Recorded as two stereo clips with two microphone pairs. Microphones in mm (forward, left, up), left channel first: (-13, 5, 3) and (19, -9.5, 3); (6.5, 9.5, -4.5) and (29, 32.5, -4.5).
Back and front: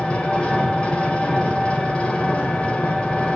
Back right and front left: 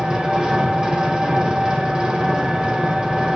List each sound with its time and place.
0.0 s an engine running: 100° left, 2.5 m